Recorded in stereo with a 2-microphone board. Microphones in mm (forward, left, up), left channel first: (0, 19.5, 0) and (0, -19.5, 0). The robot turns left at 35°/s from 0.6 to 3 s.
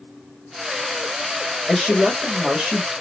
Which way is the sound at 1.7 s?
15° left.